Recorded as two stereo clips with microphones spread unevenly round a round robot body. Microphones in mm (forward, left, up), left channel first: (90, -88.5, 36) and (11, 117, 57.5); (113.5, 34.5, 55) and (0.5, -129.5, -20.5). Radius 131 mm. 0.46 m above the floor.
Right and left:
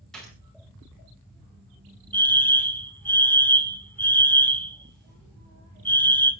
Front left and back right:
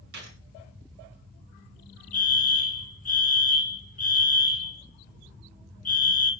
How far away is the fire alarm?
About 2.5 m.